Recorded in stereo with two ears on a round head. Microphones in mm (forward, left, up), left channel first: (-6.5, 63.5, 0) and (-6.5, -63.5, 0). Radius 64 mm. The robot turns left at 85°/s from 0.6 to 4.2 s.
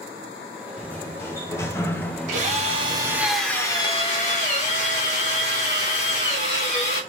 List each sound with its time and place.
0.8 s a sliding door: 10° left (ahead or behind), 0.7 m; by 3.3 s 15° right (ahead or behind), 0.7 m
2.3 s a drill: 90° right, 1.2 m; by 7.0 s 110° left, 1.2 m